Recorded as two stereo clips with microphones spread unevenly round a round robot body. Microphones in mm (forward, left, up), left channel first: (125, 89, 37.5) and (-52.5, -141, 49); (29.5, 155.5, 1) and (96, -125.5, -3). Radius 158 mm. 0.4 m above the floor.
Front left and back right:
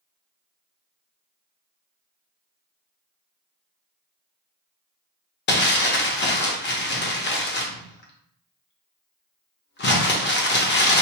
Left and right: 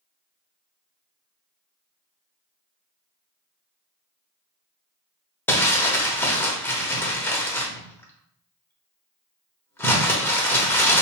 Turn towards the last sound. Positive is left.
turn(degrees=25)